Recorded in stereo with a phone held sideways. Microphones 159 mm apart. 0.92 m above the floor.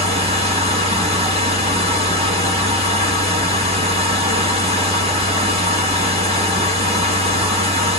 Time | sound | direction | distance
0.0 | a machine running | 40° right (ahead or behind) | 1.5 m